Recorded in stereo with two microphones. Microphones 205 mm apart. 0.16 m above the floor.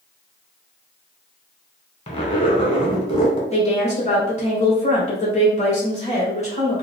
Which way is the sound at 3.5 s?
30° left (ahead or behind).